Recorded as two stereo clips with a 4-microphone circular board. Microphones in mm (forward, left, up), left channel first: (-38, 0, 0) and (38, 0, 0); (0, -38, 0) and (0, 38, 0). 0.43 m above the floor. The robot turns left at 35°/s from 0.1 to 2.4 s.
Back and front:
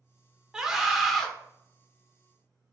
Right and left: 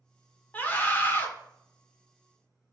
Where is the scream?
65° right, 1.0 m; by 1.3 s 90° right, 1.0 m.